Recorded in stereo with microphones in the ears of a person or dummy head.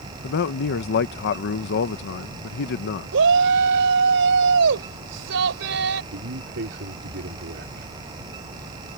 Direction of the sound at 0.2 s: 55° left (ahead or behind).